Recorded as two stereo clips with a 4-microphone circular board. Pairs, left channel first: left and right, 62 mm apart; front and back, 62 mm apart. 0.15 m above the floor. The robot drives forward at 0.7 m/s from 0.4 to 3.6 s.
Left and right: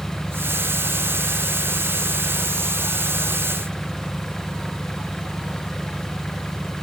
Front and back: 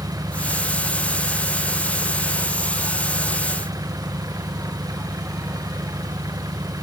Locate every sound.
0.0 s an engine running: 170° left